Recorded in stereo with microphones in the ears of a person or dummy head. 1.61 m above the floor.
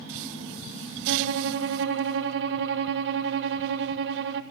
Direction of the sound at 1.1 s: 65° right (ahead or behind).